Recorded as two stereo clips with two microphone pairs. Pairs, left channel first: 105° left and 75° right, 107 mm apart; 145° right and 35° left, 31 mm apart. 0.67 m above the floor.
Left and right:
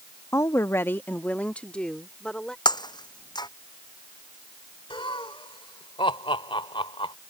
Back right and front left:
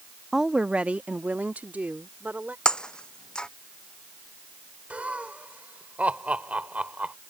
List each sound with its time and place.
0.3 s a woman speaking: 105° left; by 2.5 s 20° left
2.6 s breaking glass: 150° left
4.9 s laughter: 70° left